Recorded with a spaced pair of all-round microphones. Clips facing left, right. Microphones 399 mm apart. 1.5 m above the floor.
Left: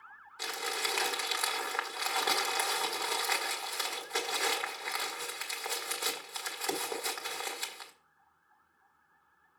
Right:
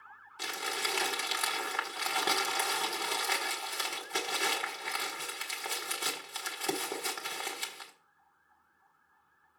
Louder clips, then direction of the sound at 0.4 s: Left 1 dB; 45° right (ahead or behind).